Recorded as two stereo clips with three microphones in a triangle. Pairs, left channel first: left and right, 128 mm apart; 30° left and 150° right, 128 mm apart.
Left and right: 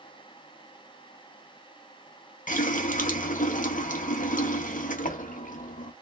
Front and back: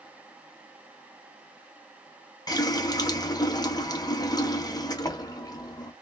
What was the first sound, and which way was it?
A running tap, 90° left.